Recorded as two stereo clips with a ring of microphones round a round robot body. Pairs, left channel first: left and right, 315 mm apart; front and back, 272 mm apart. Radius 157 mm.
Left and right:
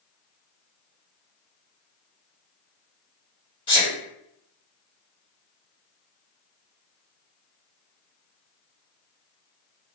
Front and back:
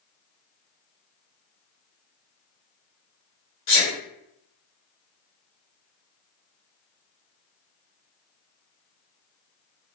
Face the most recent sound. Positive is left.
turn(degrees=20)